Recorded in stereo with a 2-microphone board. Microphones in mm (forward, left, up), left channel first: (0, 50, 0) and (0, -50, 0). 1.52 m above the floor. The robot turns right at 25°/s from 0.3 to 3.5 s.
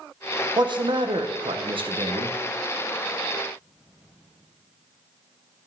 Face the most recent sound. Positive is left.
turn(degrees=-45)